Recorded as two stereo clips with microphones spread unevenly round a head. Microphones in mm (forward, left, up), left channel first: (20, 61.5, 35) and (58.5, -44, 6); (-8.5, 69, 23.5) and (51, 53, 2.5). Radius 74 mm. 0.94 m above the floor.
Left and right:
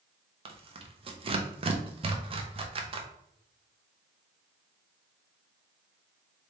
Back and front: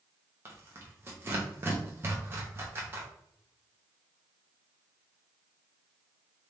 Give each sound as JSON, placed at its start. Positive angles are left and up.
{"t": 0.5, "sound": "tearing paper", "azimuth_deg": -55, "distance_m": 0.9}